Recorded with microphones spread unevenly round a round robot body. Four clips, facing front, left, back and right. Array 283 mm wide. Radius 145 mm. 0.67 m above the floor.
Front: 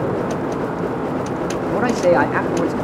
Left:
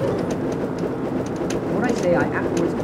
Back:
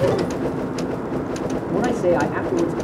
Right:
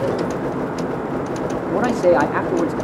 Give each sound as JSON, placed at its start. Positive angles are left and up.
{"t": 1.7, "sound": "a man speaking", "azimuth_deg": -40, "distance_m": 1.1}